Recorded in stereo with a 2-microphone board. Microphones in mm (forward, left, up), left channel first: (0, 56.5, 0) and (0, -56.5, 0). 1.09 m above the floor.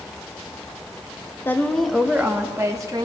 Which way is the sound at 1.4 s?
20° left (ahead or behind).